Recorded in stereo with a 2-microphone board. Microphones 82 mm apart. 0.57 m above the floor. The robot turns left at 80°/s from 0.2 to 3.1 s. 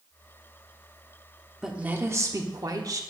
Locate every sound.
1.6 s a woman speaking: 5° right, 1.1 m; by 3.0 s 115° right, 1.1 m